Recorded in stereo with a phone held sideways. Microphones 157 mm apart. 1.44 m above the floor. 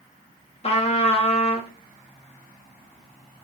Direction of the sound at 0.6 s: 40° left (ahead or behind).